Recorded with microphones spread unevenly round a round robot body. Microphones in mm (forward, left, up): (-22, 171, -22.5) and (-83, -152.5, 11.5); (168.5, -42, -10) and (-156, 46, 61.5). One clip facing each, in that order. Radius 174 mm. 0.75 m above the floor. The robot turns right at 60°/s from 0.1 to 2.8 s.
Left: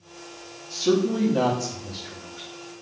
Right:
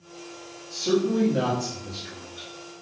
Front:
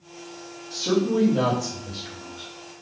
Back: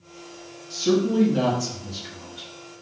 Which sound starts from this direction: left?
A man speaking, at 0.7 s.